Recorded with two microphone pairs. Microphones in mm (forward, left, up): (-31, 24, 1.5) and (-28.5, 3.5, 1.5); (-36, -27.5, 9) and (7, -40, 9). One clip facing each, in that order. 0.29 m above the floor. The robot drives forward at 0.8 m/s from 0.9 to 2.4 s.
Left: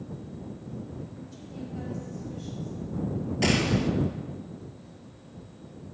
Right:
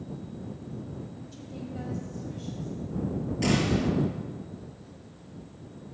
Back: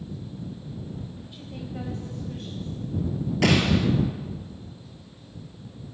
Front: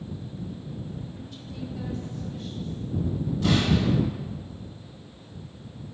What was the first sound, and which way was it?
A woman speaking, 135° right.